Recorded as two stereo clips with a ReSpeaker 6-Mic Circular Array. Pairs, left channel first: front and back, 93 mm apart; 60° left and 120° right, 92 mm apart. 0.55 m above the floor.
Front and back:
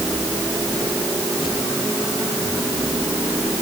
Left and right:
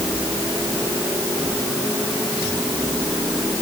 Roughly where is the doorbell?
I don't hear a doorbell.